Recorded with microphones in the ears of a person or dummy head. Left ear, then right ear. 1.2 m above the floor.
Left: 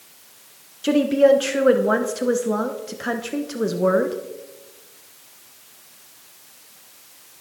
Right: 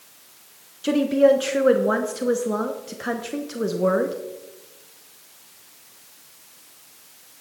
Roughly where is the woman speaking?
Centre.